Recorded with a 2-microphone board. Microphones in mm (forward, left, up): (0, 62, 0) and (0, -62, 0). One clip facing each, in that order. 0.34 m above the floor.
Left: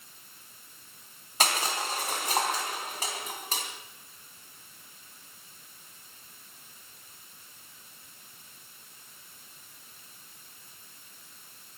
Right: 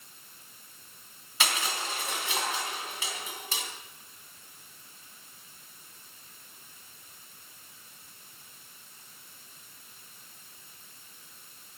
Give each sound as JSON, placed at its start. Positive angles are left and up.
{"t": 1.4, "sound": "crushing", "side_deg": 40, "distance_m": 3.0}